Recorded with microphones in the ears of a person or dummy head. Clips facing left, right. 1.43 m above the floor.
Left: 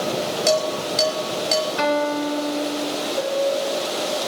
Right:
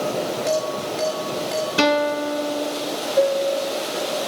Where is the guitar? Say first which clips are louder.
Right 5 dB; 45° right (ahead or behind), 1.0 m.